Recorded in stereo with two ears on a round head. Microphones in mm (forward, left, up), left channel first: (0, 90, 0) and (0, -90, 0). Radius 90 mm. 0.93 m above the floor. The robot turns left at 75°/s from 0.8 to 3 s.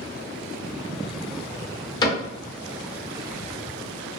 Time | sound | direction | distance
2.0 | a cupboard door | 20° left (ahead or behind) | 1.0 m